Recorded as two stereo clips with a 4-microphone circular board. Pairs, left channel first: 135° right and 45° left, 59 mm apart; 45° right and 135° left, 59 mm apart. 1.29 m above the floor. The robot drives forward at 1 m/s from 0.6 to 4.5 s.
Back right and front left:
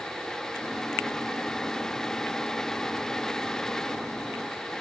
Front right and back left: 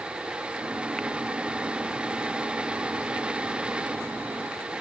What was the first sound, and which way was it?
Only background noise.